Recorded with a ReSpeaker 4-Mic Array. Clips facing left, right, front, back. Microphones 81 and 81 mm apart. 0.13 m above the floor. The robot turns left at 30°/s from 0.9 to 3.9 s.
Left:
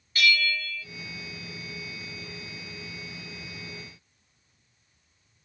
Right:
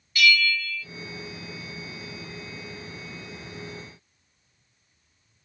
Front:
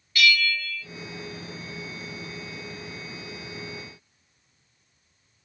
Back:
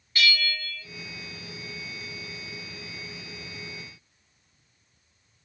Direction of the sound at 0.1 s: 125° left.